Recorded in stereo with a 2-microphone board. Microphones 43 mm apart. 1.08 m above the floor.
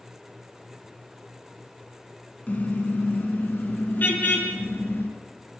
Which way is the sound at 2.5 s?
40° left (ahead or behind).